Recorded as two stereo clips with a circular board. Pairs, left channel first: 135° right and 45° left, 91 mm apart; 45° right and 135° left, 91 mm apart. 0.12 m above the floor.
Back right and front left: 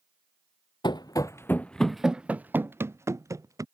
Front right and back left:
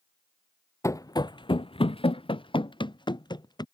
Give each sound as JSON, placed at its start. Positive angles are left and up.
{"t": 0.8, "sound": "running footsteps", "azimuth_deg": -105}